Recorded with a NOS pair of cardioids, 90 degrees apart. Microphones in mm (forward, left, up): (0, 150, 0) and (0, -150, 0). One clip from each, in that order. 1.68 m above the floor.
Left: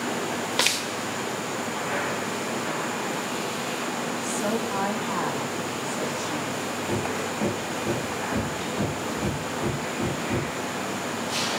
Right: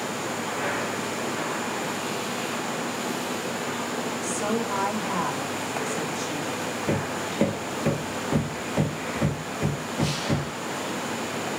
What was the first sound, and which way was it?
A woman speaking, 15° right.